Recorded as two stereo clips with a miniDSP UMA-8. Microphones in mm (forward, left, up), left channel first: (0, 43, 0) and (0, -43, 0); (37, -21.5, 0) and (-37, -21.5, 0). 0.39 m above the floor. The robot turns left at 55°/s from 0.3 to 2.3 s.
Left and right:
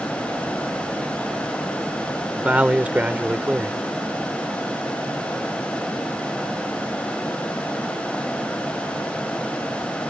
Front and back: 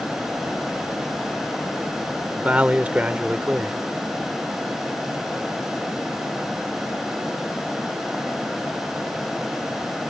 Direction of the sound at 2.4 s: 140° right.